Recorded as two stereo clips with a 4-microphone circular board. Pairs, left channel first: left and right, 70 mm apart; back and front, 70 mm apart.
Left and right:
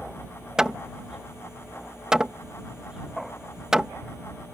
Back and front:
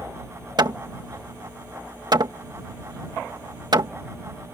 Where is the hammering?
10° right.